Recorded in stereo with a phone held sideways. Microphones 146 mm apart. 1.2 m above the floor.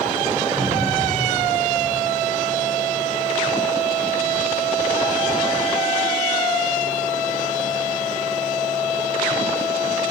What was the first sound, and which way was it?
A cupboard door, 55° right (ahead or behind).